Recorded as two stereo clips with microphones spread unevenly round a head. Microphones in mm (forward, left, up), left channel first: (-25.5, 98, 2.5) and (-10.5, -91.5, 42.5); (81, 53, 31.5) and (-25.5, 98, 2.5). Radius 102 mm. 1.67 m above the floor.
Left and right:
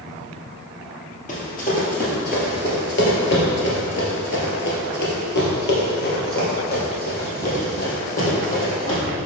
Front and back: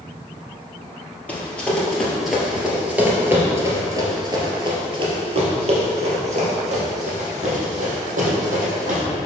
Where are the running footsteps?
40° left, 2.5 m; by 9.0 s 150° left, 4 m.